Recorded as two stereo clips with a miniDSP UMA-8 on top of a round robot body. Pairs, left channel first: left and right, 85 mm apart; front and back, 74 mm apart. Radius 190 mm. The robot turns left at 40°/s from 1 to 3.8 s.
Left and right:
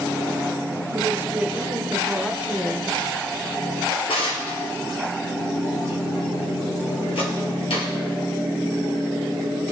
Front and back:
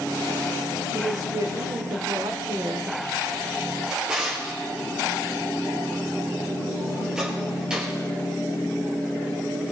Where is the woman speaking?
140° right, 1.4 m; by 3.0 s 140° left, 1.4 m.